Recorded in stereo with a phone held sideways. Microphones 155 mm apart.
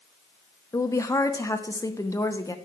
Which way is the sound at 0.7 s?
20° left (ahead or behind).